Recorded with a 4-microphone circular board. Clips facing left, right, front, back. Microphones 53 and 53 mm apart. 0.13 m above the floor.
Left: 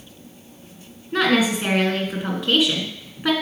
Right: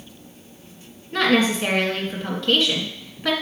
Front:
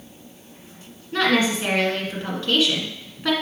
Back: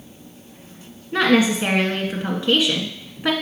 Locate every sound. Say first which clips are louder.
1.1 s a woman speaking: even, back 3 dB; 145° left, 1.7 m